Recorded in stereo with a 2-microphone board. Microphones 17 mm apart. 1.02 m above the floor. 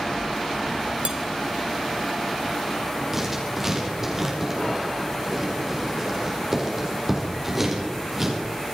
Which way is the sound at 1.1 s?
85° right.